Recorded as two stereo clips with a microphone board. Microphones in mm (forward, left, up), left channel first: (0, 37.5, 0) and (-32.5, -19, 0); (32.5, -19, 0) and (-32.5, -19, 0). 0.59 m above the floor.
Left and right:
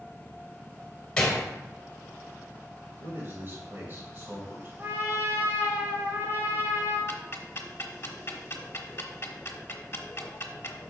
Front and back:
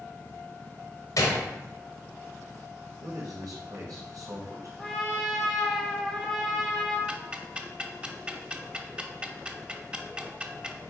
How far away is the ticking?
About 0.8 m.